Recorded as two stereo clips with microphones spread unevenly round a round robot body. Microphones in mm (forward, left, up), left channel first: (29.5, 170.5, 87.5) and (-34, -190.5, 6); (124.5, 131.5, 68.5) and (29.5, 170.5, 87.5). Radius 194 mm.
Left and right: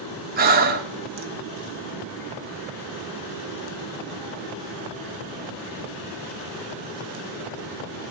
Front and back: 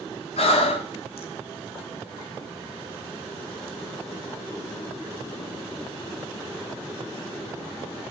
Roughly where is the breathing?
Ahead right.